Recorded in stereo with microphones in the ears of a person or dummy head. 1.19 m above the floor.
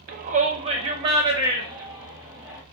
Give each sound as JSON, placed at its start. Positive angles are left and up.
{"t": 0.1, "sound": "a shout", "side_deg": -45, "distance_m": 0.6}